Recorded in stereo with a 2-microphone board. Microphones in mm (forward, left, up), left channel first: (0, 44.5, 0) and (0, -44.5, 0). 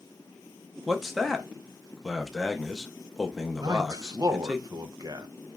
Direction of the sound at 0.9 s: Centre (ahead or behind).